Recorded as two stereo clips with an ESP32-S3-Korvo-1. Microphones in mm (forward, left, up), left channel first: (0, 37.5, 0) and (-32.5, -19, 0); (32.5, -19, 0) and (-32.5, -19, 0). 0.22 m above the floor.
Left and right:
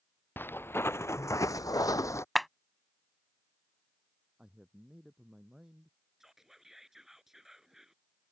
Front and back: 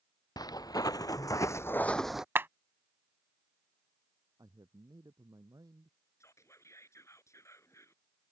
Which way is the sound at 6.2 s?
35° right.